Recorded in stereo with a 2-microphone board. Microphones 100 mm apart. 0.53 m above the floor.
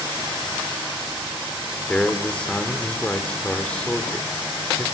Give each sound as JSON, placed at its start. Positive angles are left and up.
{"t": 1.9, "sound": "a man speaking", "side_deg": 10, "distance_m": 1.9}